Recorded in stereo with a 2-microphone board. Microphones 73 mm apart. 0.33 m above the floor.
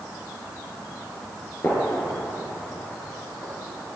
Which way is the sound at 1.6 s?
30° left (ahead or behind).